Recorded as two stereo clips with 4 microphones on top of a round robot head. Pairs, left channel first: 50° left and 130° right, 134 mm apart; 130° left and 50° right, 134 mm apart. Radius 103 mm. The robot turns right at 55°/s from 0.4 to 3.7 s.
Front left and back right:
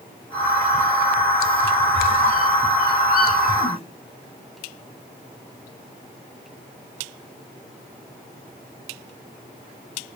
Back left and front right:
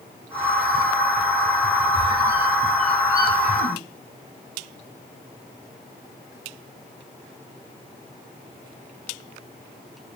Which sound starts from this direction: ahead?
A squeak, at 1.9 s.